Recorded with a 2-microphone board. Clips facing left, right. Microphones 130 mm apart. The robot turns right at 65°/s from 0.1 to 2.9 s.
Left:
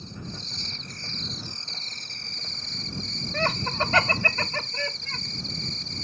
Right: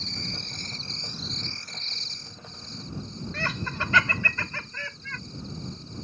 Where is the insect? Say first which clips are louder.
Even; 80° right; by 6.0 s 105° left.